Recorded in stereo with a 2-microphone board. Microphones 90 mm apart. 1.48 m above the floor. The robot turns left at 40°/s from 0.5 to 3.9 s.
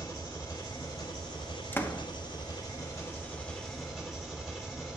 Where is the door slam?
25° left (ahead or behind), 0.9 m; by 2.0 s 35° left (ahead or behind), 0.9 m.